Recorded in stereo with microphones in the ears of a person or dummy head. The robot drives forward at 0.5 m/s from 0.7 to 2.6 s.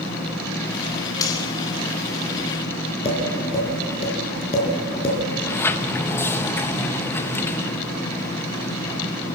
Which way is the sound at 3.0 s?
30° left (ahead or behind).